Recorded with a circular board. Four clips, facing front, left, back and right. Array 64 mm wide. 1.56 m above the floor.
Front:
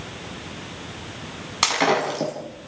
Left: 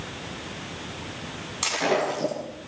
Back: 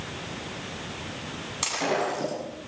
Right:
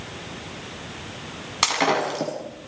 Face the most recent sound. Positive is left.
turn(degrees=-45)